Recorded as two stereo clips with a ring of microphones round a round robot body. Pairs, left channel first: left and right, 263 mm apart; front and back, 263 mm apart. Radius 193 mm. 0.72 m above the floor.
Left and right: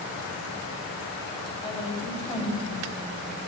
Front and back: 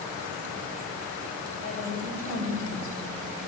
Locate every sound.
1.6 s a woman speaking: 20° left, 4 m